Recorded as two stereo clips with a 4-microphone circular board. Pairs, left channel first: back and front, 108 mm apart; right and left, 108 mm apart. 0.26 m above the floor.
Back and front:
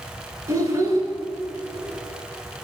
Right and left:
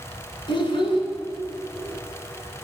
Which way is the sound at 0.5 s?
55° right.